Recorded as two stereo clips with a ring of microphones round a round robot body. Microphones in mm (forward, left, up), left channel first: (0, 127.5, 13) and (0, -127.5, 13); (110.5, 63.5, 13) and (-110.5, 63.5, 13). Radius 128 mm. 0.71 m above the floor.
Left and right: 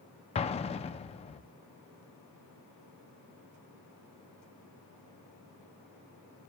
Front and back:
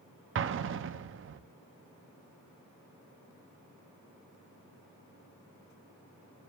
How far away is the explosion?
About 0.5 m.